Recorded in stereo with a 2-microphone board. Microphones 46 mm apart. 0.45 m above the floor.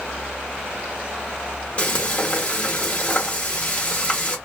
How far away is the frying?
About 1.3 m.